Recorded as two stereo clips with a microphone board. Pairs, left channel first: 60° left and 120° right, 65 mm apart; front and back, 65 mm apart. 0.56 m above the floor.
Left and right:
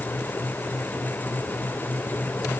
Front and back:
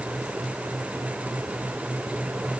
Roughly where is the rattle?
No rattle in this recording.